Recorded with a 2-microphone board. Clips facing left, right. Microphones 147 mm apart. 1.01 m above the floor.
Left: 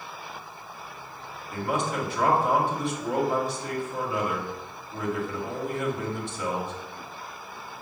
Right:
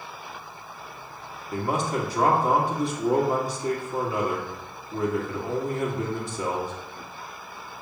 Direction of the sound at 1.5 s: 40° right (ahead or behind).